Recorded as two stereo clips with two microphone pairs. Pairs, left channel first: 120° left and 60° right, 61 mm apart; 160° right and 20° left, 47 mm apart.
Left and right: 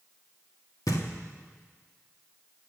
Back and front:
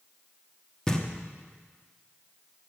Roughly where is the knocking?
Behind left.